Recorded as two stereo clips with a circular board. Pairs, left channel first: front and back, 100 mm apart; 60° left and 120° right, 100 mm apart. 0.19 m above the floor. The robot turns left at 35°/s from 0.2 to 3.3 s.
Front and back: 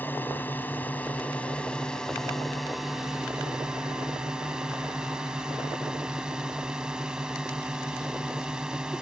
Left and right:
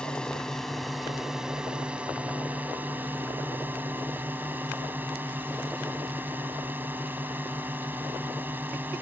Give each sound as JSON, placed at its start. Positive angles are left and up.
{"t": 0.0, "sound": "a drone", "azimuth_deg": -5}